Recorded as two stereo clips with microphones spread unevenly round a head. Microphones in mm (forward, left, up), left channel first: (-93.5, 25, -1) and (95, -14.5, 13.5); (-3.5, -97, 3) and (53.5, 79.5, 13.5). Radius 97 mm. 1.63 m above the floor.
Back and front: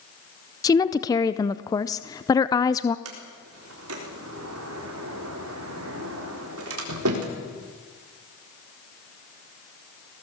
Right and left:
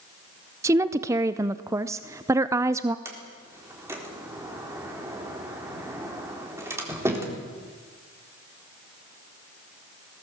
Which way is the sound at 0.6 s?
110° left.